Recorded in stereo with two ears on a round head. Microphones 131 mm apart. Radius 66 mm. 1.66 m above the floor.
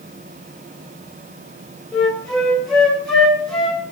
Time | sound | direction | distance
1.9 | a flute | 5° left (ahead or behind) | 1.8 m